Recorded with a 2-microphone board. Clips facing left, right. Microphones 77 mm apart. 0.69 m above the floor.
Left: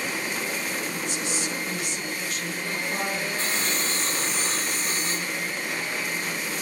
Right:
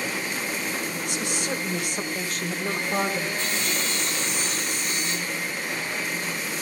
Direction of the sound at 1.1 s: 75° right (ahead or behind).